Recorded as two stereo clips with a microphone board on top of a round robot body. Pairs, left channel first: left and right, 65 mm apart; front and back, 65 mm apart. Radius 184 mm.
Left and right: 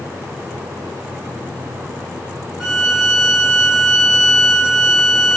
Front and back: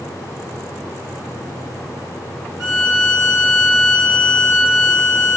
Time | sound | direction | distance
2.6 | a violin | 170° left | 0.6 m